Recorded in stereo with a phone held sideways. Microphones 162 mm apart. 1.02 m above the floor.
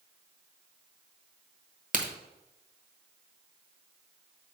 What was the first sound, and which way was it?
A crack, 50° right (ahead or behind).